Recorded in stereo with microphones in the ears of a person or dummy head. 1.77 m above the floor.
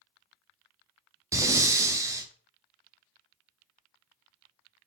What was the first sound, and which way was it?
Breathing, 20° right (ahead or behind).